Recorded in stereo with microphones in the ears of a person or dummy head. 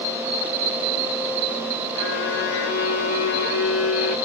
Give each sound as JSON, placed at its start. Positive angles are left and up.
{"t": 1.9, "sound": "a violin", "side_deg": 75, "distance_m": 2.5}